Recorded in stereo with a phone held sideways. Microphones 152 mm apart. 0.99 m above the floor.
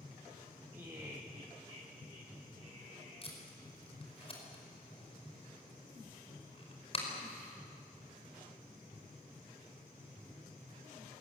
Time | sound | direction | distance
0.7 | laughter | 15° right (ahead or behind) | 1.5 m
3.2 | tape being pulled | 40° left (ahead or behind) | 5 m